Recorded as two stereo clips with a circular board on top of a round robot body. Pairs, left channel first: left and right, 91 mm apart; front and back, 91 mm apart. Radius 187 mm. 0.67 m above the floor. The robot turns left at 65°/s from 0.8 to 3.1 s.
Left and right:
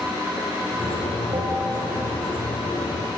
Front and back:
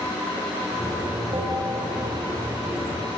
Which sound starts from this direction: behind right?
A bell, at 1.3 s.